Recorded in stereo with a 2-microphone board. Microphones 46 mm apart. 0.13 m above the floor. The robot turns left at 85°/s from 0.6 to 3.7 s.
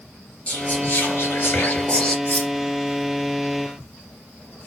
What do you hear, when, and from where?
0.5 s whispering: 150° left, 2.5 m; by 2.1 s 20° left, 2.5 m
2.2 s cutlery clinking: 40° left (ahead or behind), 3 m; by 2.5 s 15° left (ahead or behind), 3 m